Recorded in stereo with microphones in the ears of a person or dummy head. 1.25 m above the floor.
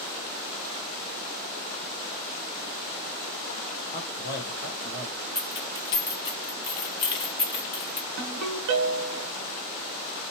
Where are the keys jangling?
25° left (ahead or behind), 0.6 m.